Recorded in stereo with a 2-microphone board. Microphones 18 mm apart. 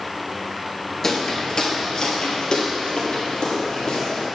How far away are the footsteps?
About 1.1 m.